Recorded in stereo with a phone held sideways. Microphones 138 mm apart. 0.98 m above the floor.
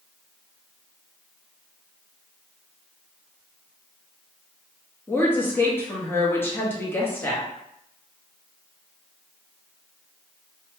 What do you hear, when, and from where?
5.1 s a woman speaking: 15° left (ahead or behind), 1.2 m